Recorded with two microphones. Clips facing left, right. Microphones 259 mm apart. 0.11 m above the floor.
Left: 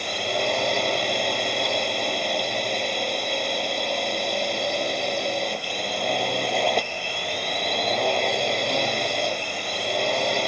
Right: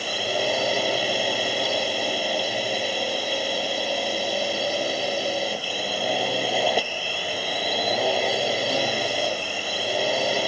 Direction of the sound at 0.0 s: 5° right (ahead or behind).